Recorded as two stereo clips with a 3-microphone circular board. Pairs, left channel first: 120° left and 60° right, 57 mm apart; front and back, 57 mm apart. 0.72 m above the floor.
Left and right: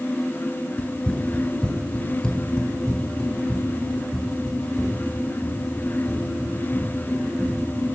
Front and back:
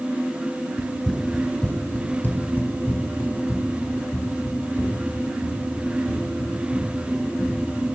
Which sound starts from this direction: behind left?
Running footsteps, at 0.8 s.